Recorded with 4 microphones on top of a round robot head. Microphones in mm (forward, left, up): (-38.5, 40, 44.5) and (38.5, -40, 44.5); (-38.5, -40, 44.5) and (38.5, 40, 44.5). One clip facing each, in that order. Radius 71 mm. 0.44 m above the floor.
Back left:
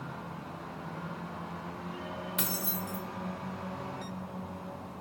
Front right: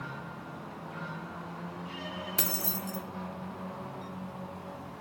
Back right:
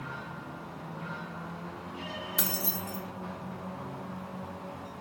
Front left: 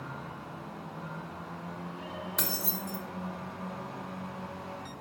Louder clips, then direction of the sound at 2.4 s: Even, back right 2 dB; 50° right.